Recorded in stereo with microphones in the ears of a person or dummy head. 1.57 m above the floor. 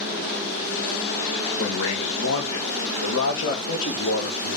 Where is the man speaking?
80° left, 1.6 m; by 4.6 s 60° left (ahead or behind), 2.5 m.